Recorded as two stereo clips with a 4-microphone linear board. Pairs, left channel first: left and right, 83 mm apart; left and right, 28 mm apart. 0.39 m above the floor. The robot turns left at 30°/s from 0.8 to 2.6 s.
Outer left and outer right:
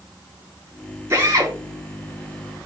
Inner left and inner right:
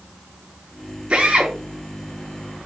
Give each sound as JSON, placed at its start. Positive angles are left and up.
{"t": 1.1, "sound": "a drill", "side_deg": -35, "distance_m": 4.0}